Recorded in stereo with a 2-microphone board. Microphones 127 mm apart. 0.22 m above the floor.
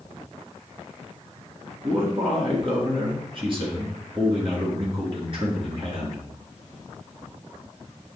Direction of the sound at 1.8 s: 45° right (ahead or behind).